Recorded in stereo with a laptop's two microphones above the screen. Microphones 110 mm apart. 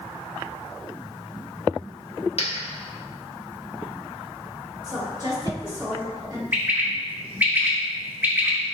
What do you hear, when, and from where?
2.4 s a dropped coin: 60° left (ahead or behind), 0.8 m
4.8 s a woman speaking: 35° right (ahead or behind), 1.6 m
6.5 s a bird: 15° right (ahead or behind), 0.9 m